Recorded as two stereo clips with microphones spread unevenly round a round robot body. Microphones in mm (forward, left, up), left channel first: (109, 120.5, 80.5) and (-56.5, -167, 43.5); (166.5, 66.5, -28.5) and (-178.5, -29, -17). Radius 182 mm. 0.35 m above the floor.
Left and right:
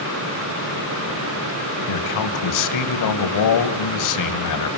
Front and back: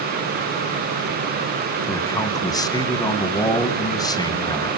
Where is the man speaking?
95° left, 2.5 m.